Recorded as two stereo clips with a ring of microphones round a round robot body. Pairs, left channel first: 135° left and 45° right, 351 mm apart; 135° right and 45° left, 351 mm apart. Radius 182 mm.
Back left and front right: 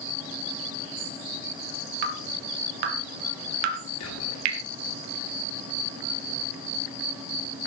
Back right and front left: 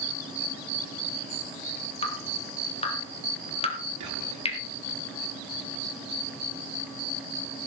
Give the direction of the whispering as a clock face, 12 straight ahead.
9 o'clock.